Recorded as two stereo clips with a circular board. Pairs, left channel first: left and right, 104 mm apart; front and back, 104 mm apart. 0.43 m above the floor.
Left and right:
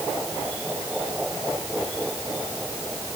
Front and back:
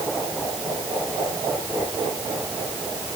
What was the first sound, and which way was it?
Only background noise.